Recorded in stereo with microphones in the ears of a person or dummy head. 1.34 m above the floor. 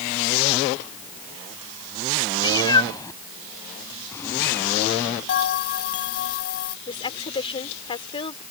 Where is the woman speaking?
30° left (ahead or behind).